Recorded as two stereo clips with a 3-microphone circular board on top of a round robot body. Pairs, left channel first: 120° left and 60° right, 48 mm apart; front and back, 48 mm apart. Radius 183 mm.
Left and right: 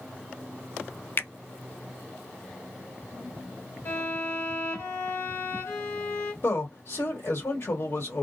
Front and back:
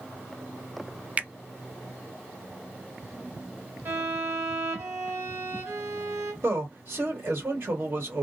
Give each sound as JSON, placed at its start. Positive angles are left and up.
{"t": 1.2, "sound": "a finger snap", "azimuth_deg": 130, "distance_m": 0.7}
{"t": 3.9, "sound": "a violin", "azimuth_deg": 150, "distance_m": 1.4}
{"t": 6.4, "sound": "a man speaking", "azimuth_deg": 150, "distance_m": 1.6}